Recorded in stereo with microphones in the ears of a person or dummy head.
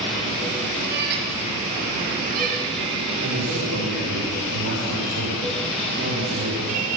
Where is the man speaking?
75° right (ahead or behind), 7.5 m.